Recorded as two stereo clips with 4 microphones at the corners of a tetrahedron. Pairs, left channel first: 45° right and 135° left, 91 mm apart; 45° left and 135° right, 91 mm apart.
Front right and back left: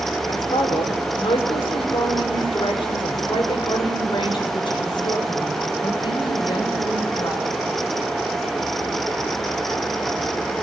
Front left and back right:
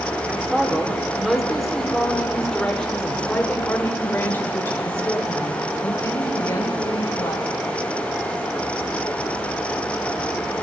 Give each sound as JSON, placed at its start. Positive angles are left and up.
{"t": 0.3, "sound": "a man speaking", "azimuth_deg": -60, "distance_m": 4.0}